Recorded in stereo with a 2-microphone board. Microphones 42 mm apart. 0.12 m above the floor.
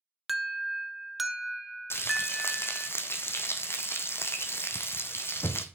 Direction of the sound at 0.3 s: 5° right (ahead or behind).